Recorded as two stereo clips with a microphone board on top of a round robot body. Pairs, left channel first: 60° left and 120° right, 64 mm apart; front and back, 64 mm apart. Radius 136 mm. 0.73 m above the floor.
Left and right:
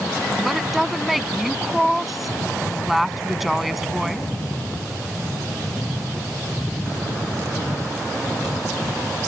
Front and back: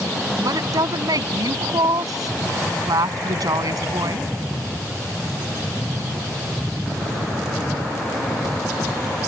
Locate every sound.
0.4 s a woman speaking: 150° left